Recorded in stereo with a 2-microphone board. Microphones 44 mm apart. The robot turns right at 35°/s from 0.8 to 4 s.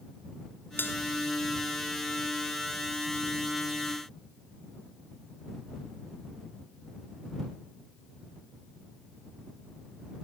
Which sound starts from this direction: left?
A bell, at 0.8 s.